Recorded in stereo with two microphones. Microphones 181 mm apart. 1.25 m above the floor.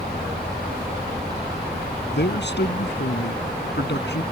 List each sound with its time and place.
2.1 s a man speaking: 70° left (ahead or behind)